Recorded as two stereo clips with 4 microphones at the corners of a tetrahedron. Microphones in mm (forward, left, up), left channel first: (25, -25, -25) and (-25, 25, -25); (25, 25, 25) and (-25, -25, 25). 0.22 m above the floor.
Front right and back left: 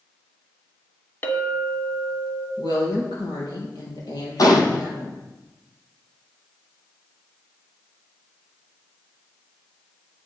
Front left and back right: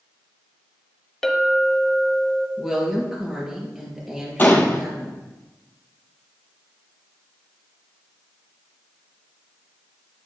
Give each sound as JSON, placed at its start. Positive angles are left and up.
{"t": 1.2, "sound": "a clink", "azimuth_deg": -30, "distance_m": 1.1}
{"t": 2.6, "sound": "a woman speaking", "azimuth_deg": -50, "distance_m": 4.5}
{"t": 4.4, "sound": "a gunshot", "azimuth_deg": -15, "distance_m": 1.8}